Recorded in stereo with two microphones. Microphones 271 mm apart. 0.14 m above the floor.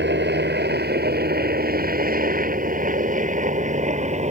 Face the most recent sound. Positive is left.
turn(degrees=-25)  # may be behind; listen again after turning